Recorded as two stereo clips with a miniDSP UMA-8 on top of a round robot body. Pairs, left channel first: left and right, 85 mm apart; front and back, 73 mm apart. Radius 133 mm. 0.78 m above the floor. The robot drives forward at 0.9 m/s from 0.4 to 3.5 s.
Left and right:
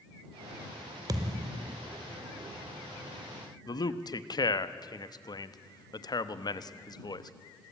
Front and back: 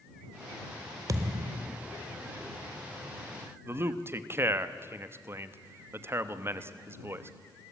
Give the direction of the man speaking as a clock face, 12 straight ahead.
8 o'clock.